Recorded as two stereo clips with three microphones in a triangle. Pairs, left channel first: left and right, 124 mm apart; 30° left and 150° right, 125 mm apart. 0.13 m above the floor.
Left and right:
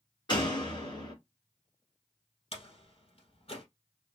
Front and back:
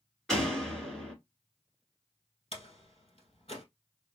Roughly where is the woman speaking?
I don't hear a woman speaking.